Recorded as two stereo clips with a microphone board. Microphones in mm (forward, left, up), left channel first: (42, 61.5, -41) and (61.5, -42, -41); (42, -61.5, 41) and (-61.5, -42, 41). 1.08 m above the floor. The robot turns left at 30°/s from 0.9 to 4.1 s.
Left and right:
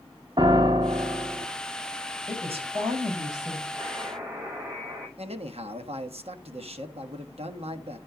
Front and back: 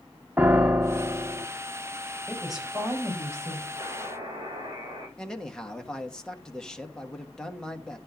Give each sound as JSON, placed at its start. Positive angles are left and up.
{"t": 0.4, "sound": "a piano", "azimuth_deg": -115, "distance_m": 0.8}
{"t": 2.3, "sound": "a woman speaking", "azimuth_deg": -95, "distance_m": 4.5}
{"t": 3.8, "sound": "a buzzer", "azimuth_deg": -140, "distance_m": 9.0}
{"t": 5.2, "sound": "a man speaking", "azimuth_deg": -95, "distance_m": 1.4}